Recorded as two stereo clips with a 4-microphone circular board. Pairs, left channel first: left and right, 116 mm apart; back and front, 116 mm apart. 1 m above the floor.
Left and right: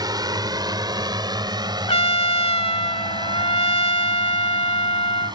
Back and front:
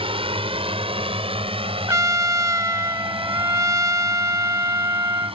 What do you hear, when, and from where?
0.0 s a drone: 35° right; by 5.4 s 40° right
1.9 s a trumpet: 60° left